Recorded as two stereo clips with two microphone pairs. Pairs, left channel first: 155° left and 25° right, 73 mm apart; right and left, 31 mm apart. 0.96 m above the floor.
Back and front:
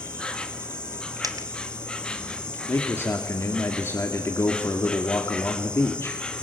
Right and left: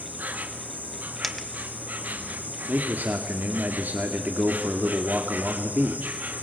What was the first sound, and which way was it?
An insect, 75° left.